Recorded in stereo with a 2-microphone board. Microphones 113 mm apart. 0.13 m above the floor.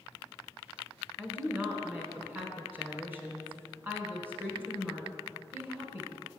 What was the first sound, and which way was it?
A woman speaking, 20° right (ahead or behind).